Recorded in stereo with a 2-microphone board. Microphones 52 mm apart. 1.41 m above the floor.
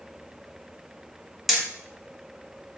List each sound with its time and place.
1.5 s hammering: centre (ahead or behind), 1.3 m